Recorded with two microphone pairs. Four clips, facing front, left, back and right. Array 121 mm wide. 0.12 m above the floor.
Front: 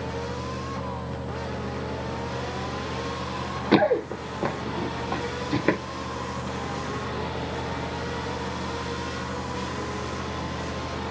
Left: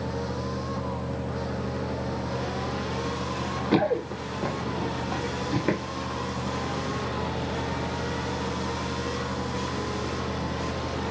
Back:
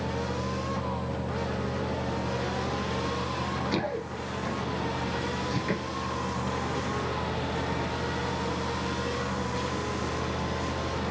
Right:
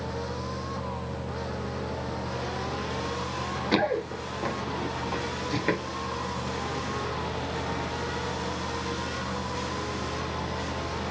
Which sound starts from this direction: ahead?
Running footsteps, at 3.7 s.